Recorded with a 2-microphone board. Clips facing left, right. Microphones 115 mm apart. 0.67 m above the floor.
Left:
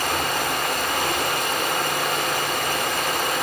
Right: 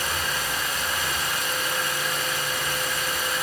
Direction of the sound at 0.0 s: 65° left (ahead or behind).